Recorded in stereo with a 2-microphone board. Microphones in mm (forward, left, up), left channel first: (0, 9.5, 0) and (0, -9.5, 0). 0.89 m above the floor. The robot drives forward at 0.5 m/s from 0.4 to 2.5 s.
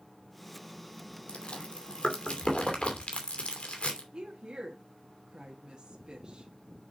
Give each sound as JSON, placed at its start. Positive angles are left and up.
{"t": 1.3, "sound": "chewing", "side_deg": 60, "distance_m": 2.5}
{"t": 4.1, "sound": "a woman speaking", "side_deg": -45, "distance_m": 1.6}